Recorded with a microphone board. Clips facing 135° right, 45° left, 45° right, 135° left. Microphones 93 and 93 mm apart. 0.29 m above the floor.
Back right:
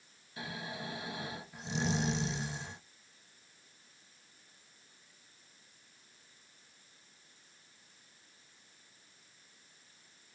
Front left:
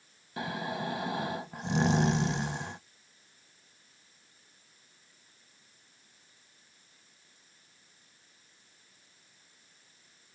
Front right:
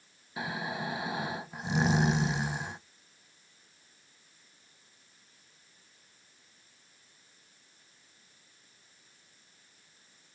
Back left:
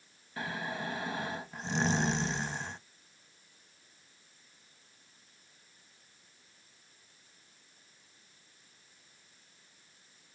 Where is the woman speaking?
I don't hear a woman speaking.